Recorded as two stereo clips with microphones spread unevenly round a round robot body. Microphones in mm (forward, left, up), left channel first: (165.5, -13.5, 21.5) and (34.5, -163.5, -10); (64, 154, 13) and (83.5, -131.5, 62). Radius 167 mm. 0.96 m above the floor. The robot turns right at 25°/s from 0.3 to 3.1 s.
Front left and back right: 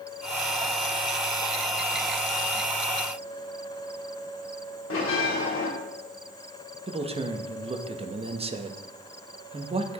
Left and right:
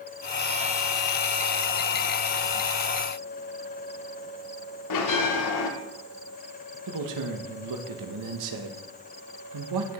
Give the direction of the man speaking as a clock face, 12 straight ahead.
3 o'clock.